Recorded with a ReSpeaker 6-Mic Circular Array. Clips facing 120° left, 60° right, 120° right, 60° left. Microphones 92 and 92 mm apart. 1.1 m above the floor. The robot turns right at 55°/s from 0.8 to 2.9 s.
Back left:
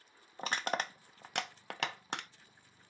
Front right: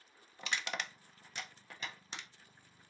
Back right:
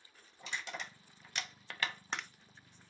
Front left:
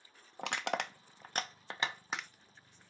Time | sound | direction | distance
0.4 | crushing | 75° left | 0.5 m